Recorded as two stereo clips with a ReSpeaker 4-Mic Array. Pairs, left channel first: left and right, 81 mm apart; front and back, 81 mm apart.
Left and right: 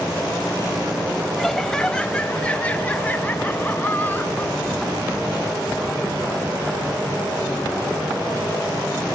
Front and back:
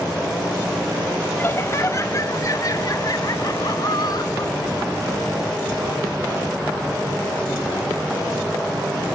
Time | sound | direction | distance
1.4 | laughter | 5° left | 1.2 m